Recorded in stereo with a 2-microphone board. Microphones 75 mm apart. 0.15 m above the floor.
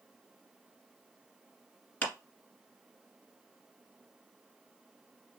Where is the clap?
20° left (ahead or behind), 1.7 m.